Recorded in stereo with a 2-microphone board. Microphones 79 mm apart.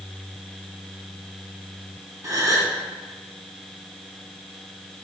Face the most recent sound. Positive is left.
turn(degrees=-45)  # may be behind; listen again after turning